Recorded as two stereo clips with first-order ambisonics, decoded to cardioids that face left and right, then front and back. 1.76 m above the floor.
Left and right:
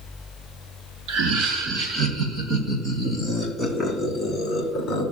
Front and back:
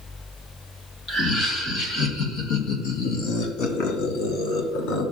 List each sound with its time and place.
1.1 s laughter: 60° right, 3.5 m; by 5.0 s 20° left, 4 m